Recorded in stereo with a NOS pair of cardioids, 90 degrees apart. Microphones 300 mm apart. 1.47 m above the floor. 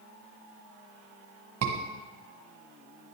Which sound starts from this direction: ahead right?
A scream, at 1.6 s.